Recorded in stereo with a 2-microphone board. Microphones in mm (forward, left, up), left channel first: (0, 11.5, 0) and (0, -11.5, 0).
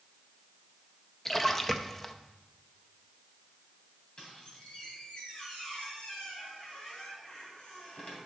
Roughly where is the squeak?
Left.